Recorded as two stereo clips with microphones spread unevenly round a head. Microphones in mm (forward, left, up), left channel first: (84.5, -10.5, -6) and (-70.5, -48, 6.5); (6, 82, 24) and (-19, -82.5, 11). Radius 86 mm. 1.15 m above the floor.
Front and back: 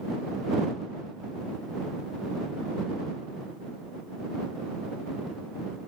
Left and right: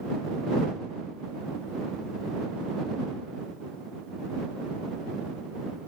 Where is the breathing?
I don't hear breathing.